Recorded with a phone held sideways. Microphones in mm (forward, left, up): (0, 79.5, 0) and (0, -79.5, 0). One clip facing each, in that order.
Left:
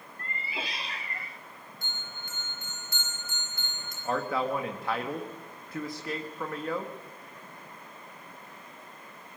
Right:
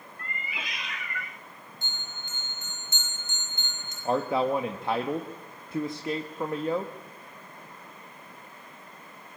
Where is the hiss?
I don't hear a hiss.